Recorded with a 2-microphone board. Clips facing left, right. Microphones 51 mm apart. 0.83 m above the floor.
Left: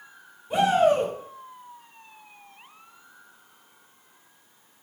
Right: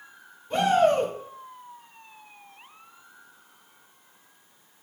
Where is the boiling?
I don't hear boiling.